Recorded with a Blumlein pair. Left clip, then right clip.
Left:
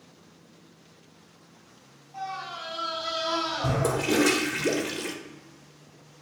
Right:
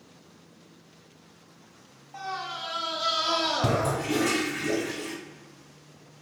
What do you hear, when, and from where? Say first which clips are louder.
2.1 s a scream: right 1 dB; 30° right, 1.5 m; by 4.0 s 80° right, 0.6 m
3.8 s a toilet flushing: left 3 dB; 55° left, 0.5 m